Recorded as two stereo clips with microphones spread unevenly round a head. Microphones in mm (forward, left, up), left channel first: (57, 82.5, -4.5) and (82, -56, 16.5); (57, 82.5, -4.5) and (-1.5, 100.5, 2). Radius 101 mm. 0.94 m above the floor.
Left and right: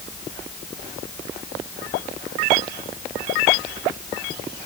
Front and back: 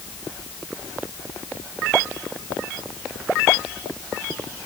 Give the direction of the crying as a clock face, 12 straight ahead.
I don't hear crying.